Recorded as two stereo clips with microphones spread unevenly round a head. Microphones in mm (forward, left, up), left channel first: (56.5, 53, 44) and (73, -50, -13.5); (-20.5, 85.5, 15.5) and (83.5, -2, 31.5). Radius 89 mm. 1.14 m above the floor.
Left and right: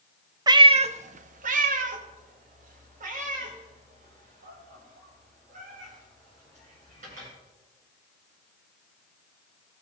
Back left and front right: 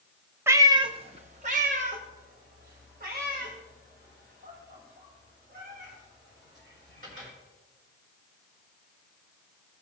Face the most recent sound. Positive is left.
turn(degrees=-90)